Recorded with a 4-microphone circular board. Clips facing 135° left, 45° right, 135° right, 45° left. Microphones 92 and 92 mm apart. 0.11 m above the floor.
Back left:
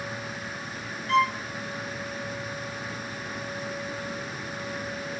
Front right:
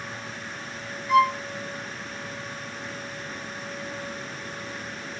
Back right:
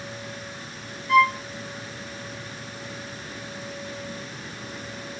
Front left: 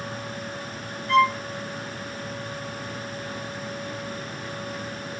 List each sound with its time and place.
1.1 s a violin: 110° right, 0.7 m